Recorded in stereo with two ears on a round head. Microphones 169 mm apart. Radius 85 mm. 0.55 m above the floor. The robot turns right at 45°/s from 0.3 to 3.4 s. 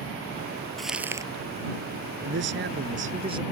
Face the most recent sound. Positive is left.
turn(degrees=-25)